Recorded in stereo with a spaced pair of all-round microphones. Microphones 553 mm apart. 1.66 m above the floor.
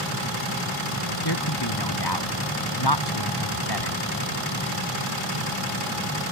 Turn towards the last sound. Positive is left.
turn(degrees=45)  # may be behind; listen again after turning